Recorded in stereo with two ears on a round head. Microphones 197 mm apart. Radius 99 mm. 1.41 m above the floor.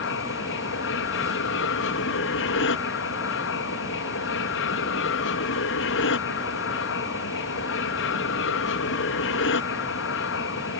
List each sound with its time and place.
0.0 s an aircraft: 60° left (ahead or behind)